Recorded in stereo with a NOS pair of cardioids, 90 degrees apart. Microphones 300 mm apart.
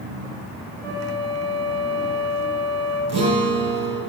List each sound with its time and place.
0.8 s a flute: 65° right, 6 m
3.1 s a guitar: 55° right, 5.5 m